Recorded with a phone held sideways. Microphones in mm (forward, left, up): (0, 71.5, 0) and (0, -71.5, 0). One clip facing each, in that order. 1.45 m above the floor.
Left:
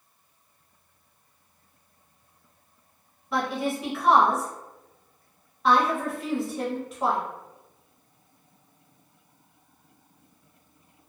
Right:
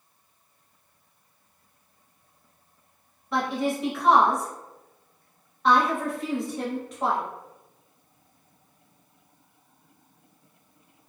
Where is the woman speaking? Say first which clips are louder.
Right 1 dB; centre (ahead or behind), 0.8 m.